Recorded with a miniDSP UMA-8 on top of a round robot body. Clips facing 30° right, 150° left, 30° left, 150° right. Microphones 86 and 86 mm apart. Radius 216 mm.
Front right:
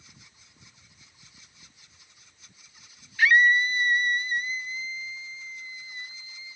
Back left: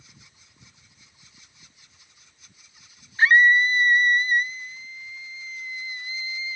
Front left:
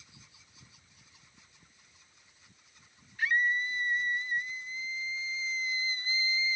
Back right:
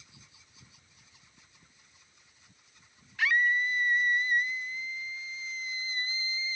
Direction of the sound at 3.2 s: 150° right.